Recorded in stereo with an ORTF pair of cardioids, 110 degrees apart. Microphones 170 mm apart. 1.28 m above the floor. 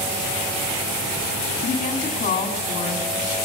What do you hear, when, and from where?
1.6 s a woman speaking: 50° left, 2.5 m